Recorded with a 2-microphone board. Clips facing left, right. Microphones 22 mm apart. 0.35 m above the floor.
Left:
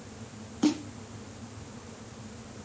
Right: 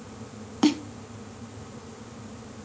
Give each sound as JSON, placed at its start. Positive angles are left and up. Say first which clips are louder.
{"t": 0.6, "sound": "a snare drum", "louder": "right 4 dB", "side_deg": -65, "distance_m": 1.4}